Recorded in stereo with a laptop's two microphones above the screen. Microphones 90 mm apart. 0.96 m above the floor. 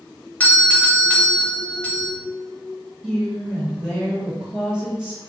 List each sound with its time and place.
0.4 s a doorbell: 20° left (ahead or behind), 0.8 m
3.0 s a woman speaking: 5° right (ahead or behind), 1.2 m